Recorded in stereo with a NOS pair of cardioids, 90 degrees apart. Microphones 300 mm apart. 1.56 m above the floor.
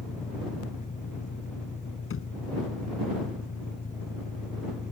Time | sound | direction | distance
0.0 | an engine running | 25° left | ?
2.1 | a thud | 45° left | ?